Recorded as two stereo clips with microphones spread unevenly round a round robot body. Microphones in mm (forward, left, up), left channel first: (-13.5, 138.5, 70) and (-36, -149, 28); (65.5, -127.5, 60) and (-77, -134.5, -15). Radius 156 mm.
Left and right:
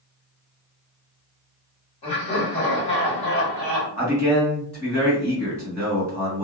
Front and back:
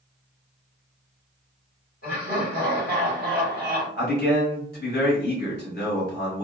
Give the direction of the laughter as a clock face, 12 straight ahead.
11 o'clock.